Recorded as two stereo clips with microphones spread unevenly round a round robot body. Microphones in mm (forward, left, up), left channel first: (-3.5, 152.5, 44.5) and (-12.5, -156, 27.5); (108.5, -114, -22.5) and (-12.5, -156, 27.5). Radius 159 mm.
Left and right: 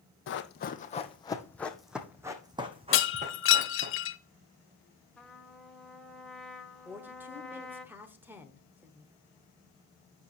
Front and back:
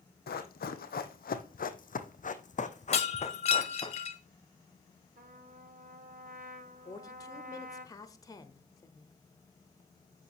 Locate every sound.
0.3 s running footsteps: 35° left, 1.2 m; by 3.9 s 30° right, 2 m
2.9 s breaking glass: 35° left, 1.3 m
5.2 s a trumpet: straight behind, 1.5 m
6.8 s a woman speaking: 10° right, 1.1 m